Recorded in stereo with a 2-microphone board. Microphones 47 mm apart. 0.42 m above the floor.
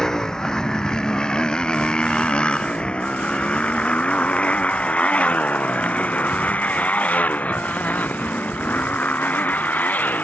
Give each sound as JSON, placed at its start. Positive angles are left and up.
{"t": 0.0, "sound": "a motorcycle", "side_deg": 10}